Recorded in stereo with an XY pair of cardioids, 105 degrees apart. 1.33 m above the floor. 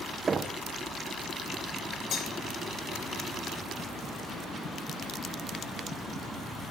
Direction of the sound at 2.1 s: 55° left.